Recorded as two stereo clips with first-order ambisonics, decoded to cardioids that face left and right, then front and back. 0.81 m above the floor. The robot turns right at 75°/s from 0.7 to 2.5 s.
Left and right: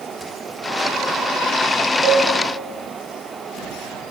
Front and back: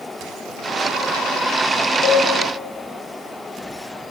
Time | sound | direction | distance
2.0 | a cowbell | 35° right | 0.7 m